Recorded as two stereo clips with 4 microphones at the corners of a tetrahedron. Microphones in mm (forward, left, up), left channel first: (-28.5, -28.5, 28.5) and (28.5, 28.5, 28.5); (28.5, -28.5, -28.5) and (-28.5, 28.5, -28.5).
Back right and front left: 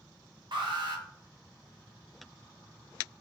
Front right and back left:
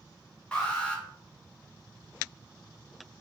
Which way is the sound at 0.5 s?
30° left.